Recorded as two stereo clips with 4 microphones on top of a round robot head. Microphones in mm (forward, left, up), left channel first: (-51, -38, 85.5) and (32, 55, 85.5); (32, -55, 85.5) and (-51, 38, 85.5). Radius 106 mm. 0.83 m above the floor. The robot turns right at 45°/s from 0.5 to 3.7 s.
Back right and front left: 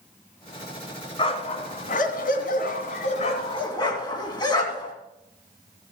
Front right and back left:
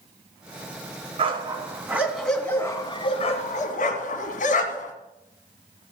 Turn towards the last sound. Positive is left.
turn(degrees=-70)